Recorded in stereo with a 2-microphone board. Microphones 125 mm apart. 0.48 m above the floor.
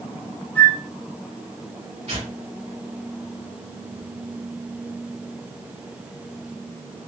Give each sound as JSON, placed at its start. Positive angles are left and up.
{"t": 0.6, "sound": "a flute", "side_deg": 15, "distance_m": 1.0}
{"t": 2.1, "sound": "tearing paper", "side_deg": -65, "distance_m": 2.0}